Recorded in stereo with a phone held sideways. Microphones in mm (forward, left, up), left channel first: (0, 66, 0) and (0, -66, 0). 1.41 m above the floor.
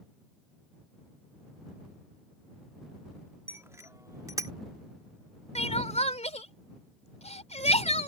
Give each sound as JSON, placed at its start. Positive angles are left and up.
{"t": 3.5, "sound": "a bicycle bell", "side_deg": -20}
{"t": 5.5, "sound": "crying", "side_deg": 55}